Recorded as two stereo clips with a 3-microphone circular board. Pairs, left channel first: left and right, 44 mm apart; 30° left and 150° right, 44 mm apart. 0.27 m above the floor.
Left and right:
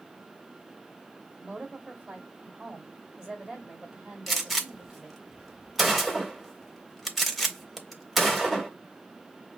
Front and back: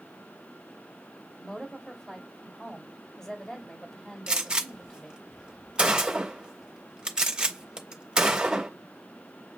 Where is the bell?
No bell in this recording.